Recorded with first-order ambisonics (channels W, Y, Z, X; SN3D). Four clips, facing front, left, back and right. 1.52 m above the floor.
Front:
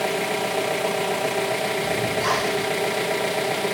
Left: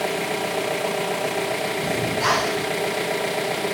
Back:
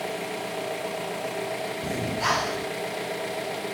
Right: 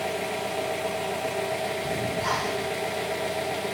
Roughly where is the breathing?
Left.